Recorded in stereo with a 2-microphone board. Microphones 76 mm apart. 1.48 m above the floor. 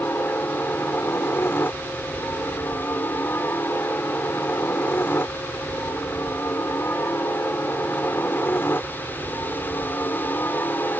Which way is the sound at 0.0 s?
30° left (ahead or behind).